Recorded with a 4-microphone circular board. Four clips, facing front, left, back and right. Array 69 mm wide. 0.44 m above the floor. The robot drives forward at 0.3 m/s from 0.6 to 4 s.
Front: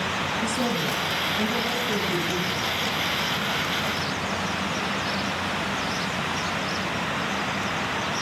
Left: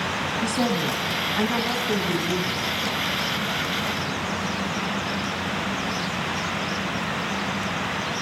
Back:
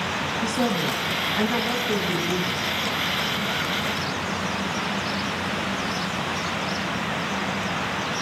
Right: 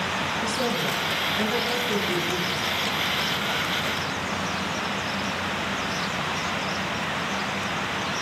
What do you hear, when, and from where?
0.4 s a woman speaking: 115° left, 4 m; by 2.8 s 125° left, 4 m